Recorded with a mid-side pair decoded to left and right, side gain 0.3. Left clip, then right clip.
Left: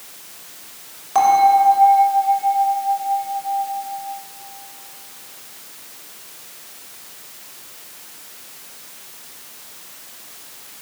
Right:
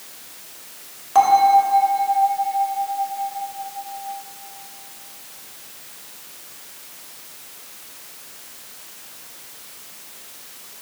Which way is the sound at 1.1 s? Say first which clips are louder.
Even; 5° right.